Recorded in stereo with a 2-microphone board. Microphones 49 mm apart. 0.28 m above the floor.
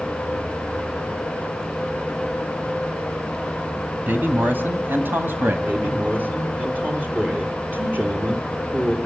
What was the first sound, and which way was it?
A man speaking, 40° right (ahead or behind).